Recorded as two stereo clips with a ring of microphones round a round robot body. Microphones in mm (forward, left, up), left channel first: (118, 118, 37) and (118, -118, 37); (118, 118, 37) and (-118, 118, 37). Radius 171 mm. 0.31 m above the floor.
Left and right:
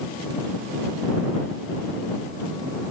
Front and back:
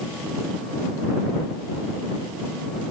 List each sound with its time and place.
Only background noise.